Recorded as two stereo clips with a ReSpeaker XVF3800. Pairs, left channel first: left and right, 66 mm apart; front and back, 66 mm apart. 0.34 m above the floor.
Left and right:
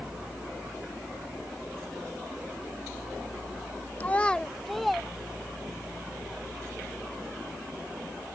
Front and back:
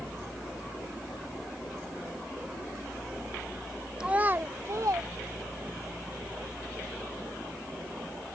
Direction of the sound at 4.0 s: 115° left.